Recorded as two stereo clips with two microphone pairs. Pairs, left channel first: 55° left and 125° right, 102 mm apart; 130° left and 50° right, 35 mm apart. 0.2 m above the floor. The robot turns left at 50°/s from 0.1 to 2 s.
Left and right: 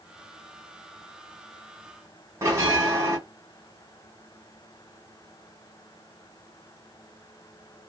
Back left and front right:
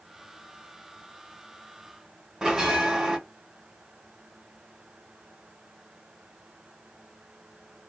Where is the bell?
105° right, 1.8 m.